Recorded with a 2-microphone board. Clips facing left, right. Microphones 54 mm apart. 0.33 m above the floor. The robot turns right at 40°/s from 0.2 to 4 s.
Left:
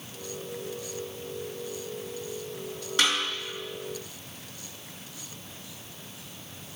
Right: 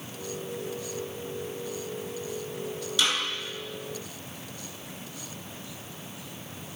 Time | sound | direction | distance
3.0 | a snare drum | 45° left (ahead or behind) | 4.5 m